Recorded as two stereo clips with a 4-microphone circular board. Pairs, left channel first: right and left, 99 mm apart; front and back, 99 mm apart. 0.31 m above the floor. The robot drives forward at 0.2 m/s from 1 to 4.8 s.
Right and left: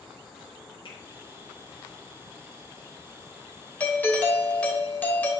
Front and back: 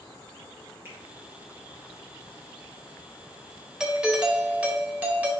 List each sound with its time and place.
0.8 s a finger snap: 115° right, 3.5 m
3.8 s a doorbell: 115° right, 1.3 m; by 5.3 s 135° right, 1.4 m